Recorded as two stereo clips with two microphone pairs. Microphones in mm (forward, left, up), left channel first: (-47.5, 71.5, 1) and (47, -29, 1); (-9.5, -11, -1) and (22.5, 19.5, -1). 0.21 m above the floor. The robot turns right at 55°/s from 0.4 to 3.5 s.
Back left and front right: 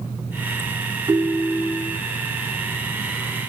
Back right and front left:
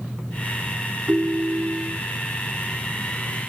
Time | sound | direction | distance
1.1 | a ringtone | 20° left | 0.7 m